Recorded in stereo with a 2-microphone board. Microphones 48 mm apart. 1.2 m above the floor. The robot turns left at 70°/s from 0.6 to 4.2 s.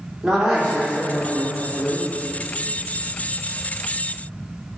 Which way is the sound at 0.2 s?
170° right.